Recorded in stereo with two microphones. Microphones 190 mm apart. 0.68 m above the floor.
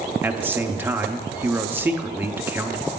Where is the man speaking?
10° right (ahead or behind), 0.6 m.